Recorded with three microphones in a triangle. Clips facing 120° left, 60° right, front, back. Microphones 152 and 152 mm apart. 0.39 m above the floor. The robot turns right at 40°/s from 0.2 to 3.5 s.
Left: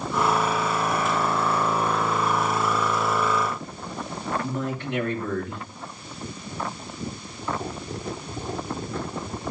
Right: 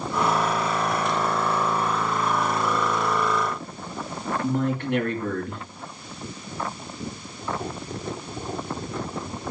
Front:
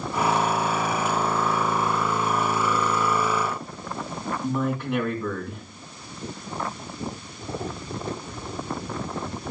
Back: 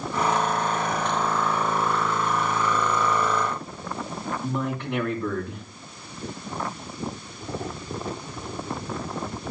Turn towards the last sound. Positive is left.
turn(degrees=-85)